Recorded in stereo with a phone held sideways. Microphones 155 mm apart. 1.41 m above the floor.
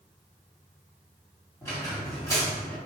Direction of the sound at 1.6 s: 20° left (ahead or behind).